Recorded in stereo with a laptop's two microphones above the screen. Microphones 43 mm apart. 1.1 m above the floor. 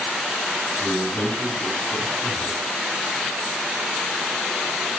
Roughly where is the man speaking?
Left.